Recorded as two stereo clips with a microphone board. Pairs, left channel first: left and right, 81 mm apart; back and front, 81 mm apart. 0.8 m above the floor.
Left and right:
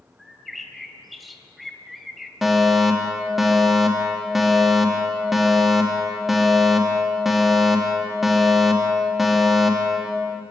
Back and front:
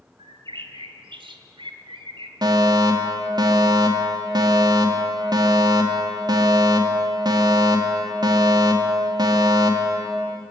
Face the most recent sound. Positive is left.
turn(degrees=-5)